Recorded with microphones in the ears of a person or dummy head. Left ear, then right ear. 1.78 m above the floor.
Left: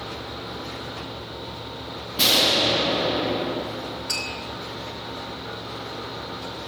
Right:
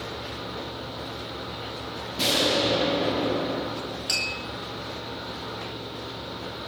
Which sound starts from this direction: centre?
Tapping, at 4.1 s.